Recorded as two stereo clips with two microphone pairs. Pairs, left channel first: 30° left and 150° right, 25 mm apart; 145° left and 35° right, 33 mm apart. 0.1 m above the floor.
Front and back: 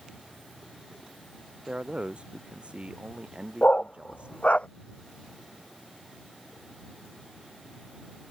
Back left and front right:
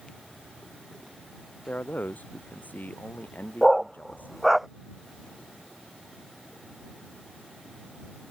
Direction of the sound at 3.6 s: 50° left.